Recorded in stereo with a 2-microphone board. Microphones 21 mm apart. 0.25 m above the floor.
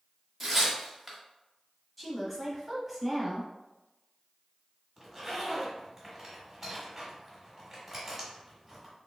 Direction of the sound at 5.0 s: 5° right (ahead or behind).